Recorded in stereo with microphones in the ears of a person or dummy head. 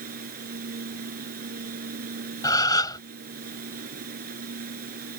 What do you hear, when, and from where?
0.0 s a machine running: 50° right (ahead or behind)
2.4 s a gasp: 20° left (ahead or behind)